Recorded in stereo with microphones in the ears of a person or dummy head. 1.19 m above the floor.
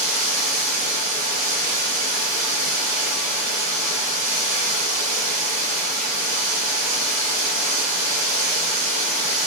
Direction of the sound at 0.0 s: 60° right (ahead or behind).